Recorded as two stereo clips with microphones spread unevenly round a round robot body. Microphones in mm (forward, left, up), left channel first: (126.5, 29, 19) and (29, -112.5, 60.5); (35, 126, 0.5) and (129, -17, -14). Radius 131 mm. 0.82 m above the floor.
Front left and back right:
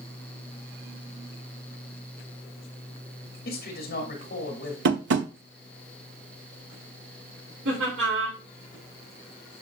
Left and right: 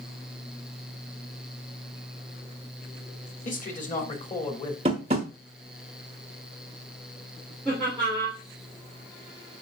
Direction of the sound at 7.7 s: 150° right.